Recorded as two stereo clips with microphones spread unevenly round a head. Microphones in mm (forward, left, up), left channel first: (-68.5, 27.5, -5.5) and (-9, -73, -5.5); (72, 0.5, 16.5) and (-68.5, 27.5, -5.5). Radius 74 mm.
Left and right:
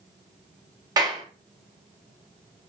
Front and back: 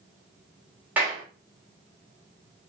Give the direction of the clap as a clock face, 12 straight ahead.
4 o'clock.